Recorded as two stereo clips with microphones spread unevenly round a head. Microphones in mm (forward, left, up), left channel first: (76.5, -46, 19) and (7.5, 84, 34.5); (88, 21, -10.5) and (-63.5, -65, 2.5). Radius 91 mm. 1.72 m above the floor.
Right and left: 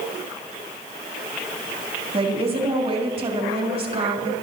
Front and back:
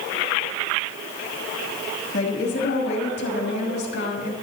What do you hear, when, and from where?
2.1 s a woman speaking: 70° left, 3 m